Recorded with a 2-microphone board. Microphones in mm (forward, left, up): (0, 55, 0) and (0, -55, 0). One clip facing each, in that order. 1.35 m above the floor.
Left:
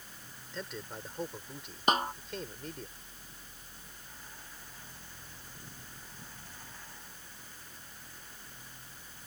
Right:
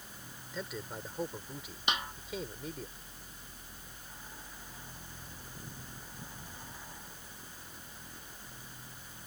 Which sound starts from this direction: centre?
A man speaking, at 0.5 s.